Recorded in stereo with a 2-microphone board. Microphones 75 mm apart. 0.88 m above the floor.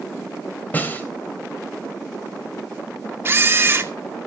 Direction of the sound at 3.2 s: 30° right (ahead or behind).